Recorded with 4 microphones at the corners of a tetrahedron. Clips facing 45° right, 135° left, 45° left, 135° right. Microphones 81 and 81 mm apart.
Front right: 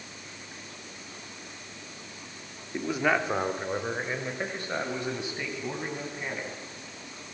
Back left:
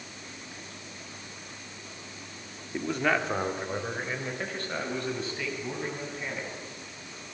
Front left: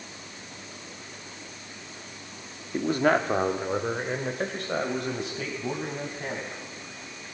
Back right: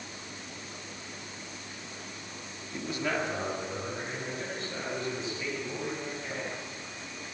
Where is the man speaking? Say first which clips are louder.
Front right 1 dB, front left 9 dB; 40° left, 1.3 m; by 6.5 s 30° left, 6.5 m.